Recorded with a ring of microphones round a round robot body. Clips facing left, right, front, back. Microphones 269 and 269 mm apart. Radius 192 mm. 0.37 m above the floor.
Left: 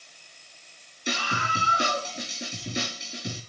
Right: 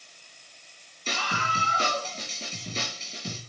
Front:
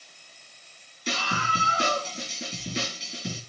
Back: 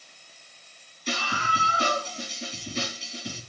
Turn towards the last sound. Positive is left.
turn(degrees=15)